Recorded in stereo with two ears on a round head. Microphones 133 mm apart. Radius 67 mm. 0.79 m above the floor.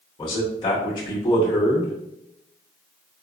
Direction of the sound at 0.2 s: 30° left (ahead or behind).